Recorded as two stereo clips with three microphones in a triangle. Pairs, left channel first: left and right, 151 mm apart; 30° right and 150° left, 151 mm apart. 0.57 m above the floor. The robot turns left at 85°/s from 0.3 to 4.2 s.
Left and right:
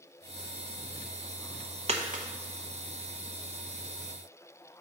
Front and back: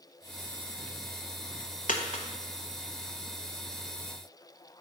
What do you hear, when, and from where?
1.9 s a dropped coin: 50° right, 0.8 m; by 2.2 s 80° right, 0.8 m